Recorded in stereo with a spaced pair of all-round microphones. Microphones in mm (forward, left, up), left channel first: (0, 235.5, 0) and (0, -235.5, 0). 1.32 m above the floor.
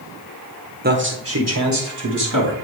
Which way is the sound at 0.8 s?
20° right (ahead or behind).